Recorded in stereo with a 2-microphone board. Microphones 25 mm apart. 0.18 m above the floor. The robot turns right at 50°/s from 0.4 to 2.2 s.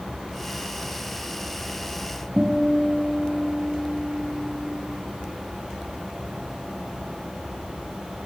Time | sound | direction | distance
2.4 | a guitar | 25° right (ahead or behind) | 1.9 m